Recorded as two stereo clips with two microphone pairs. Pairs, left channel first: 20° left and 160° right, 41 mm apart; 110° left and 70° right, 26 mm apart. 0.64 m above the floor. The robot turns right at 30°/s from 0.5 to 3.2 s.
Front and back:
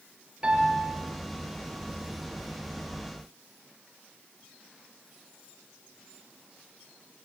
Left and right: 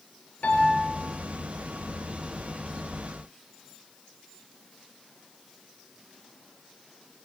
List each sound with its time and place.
0.4 s a piano: 135° left, 5.5 m; by 0.8 s 145° left, 5.5 m